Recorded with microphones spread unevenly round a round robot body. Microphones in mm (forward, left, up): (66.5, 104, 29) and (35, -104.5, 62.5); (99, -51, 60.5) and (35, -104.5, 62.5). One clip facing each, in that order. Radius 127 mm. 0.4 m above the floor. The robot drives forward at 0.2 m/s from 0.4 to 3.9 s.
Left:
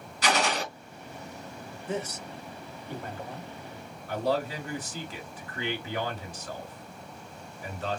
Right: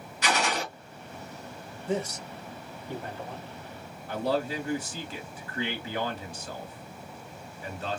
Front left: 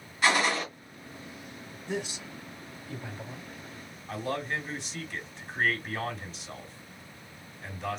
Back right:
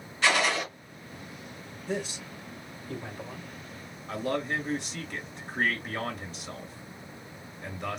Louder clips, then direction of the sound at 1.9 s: Right 3 dB, back right 1 dB; straight behind.